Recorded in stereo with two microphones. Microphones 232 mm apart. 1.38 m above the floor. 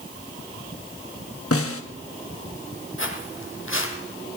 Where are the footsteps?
60° left (ahead or behind), 3 m.